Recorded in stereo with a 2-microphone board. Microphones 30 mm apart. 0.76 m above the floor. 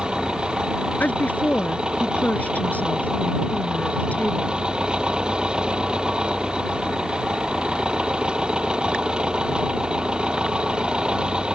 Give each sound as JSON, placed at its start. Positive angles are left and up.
{"t": 0.0, "sound": "an engine running", "side_deg": -25}
{"t": 1.0, "sound": "a woman speaking", "side_deg": 55}